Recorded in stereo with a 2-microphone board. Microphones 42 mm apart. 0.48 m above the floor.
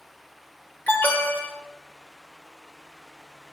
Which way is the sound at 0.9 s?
50° left (ahead or behind).